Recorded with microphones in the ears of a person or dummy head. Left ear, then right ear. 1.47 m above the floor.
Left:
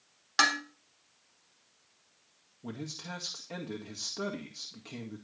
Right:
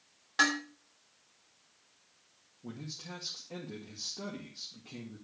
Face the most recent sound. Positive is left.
turn(degrees=75)  # may be behind; listen again after turning